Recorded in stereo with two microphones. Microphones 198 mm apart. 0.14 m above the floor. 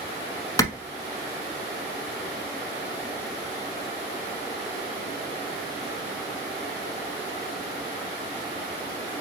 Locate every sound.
0.6 s a clap: 20° left (ahead or behind), 0.9 m